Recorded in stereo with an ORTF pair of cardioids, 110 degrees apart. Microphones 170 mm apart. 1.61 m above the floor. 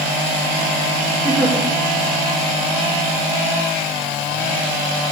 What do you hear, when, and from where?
1.2 s a giggle: 15° left, 4 m